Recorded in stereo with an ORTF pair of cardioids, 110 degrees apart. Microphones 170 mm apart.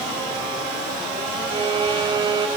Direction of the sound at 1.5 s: 30° right.